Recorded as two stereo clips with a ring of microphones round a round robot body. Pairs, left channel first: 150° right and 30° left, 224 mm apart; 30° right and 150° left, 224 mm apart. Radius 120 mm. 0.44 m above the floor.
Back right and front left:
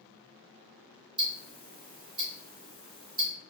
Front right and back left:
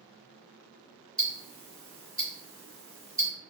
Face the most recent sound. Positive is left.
turn(degrees=55)